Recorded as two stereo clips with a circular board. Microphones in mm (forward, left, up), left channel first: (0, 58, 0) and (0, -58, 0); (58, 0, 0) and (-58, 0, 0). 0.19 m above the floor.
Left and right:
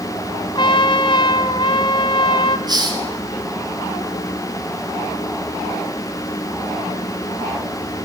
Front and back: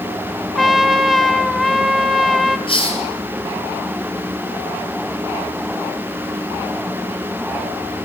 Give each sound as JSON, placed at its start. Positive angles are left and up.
{"t": 0.6, "sound": "a trumpet", "azimuth_deg": 90, "distance_m": 0.9}
{"t": 2.7, "sound": "a hiss", "azimuth_deg": -40, "distance_m": 3.5}